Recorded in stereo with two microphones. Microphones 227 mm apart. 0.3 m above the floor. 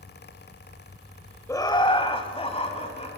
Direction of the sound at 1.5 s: 10° left (ahead or behind).